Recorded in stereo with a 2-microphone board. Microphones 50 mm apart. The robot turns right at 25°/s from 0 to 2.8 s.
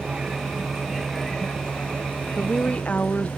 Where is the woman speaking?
15° left (ahead or behind); by 3.3 s 25° left (ahead or behind).